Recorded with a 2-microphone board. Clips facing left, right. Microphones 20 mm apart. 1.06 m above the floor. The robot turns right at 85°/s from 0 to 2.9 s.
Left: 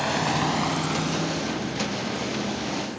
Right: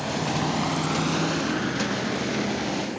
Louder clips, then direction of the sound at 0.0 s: Left 2 dB; 40° left (ahead or behind).